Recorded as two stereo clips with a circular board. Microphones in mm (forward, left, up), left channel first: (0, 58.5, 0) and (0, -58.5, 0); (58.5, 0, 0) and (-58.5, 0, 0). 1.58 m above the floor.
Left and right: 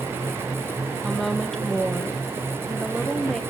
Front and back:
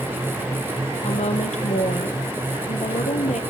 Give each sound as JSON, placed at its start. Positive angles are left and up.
{"t": 1.0, "sound": "a woman speaking", "azimuth_deg": 5, "distance_m": 1.6}